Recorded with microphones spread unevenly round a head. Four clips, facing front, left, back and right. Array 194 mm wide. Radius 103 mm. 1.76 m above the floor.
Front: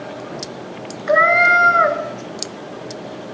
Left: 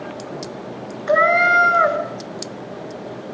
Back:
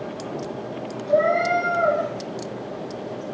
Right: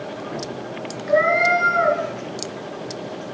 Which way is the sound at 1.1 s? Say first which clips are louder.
Left 2 dB, front 5 dB; 40° left.